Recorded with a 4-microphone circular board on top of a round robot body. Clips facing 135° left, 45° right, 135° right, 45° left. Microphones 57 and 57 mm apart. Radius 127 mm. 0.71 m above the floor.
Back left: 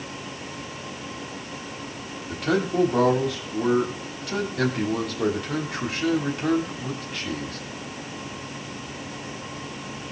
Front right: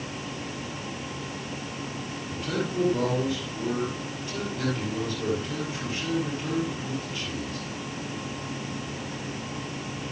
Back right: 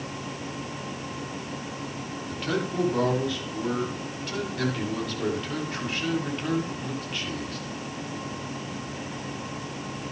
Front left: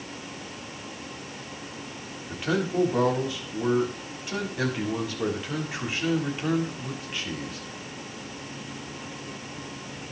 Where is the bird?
I don't hear a bird.